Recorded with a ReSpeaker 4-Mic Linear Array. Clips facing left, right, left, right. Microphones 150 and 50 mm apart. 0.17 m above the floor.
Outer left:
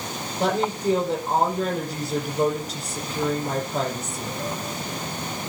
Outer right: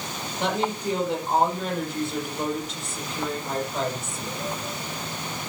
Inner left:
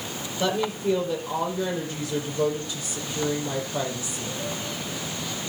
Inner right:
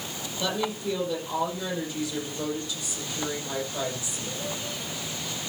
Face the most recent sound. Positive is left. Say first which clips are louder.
# outer left 3 dB, inner left 4 dB
turn(degrees=40)  # may be behind; listen again after turning